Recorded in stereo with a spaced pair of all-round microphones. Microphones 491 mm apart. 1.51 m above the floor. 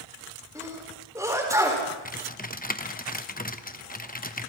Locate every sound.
0.6 s a sneeze: 5° right (ahead or behind), 6 m
2.0 s typing on a keyboard: 15° left (ahead or behind), 1.0 m